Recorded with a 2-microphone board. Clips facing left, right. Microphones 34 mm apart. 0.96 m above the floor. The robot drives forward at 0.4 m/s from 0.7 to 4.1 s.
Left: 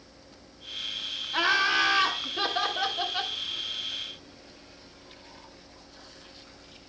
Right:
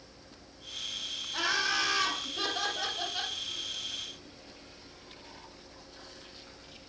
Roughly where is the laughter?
Left.